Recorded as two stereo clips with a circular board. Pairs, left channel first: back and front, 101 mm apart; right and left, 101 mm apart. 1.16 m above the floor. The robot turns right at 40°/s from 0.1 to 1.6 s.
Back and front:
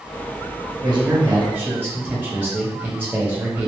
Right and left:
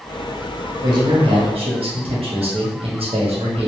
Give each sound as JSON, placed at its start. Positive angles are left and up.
{"t": 0.8, "sound": "a man speaking", "azimuth_deg": 40, "distance_m": 1.4}